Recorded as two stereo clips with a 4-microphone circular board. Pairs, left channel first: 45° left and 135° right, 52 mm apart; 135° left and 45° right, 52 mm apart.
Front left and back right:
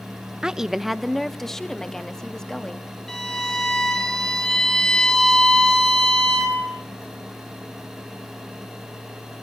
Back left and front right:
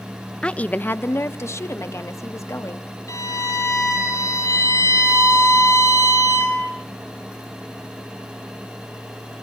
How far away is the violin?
About 7.5 m.